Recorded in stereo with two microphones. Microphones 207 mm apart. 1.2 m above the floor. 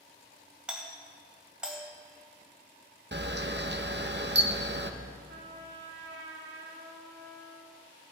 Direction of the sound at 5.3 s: 75° right (ahead or behind).